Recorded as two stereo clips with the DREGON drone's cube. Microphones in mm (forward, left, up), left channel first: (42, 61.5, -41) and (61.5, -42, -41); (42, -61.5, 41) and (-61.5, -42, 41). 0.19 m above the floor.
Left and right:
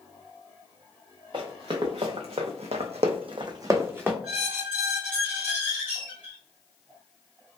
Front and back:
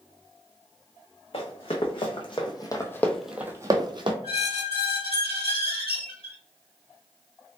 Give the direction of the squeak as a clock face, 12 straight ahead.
12 o'clock.